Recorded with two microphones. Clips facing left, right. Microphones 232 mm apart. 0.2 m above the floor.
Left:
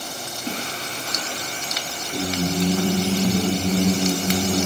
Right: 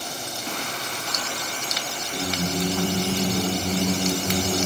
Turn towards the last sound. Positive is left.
turn(degrees=35)  # may be behind; listen again after turning